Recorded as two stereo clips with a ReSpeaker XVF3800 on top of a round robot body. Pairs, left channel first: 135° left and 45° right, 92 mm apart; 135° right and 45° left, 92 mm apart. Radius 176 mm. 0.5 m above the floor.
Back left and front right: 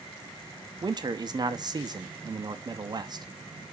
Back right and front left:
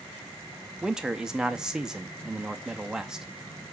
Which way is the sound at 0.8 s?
35° right.